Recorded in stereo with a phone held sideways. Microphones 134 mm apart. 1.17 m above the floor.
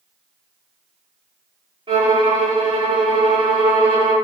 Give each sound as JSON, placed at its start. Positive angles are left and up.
{"t": 1.9, "sound": "a violin", "side_deg": -40, "distance_m": 1.2}